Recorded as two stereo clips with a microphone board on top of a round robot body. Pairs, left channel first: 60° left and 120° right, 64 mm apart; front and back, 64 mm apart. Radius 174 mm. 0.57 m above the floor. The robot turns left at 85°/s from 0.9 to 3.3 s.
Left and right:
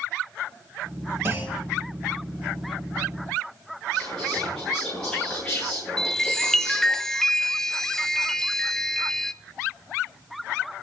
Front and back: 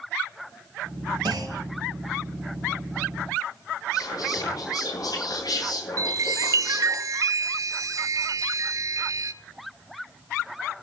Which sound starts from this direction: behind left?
A chime, at 6.0 s.